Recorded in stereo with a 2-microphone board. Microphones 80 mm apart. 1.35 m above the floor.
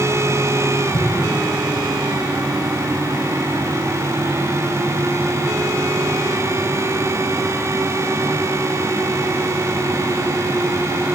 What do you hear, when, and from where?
0.9 s an explosion: 70° left (ahead or behind), 7.5 m